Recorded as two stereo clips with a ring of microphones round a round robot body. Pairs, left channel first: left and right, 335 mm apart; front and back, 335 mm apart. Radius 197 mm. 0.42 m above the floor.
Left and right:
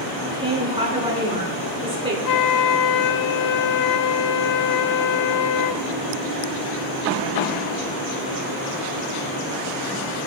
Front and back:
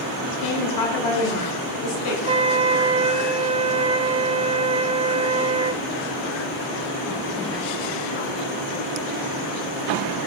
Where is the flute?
110° left, 0.5 m.